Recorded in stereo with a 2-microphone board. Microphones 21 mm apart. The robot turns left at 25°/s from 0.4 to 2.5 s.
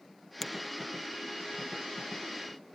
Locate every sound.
0.4 s a finger snap: 10° left (ahead or behind), 1.0 m; by 0.5 s 5° left (ahead or behind), 1.0 m